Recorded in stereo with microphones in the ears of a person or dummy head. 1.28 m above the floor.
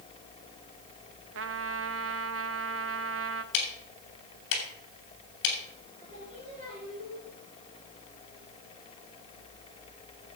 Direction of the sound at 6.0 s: 35° right (ahead or behind).